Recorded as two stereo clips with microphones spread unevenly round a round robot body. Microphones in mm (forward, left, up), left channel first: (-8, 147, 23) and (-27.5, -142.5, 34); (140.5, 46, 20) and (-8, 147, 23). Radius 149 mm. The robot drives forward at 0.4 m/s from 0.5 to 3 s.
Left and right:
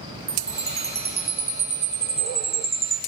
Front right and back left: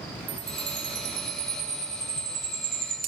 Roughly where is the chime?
Behind.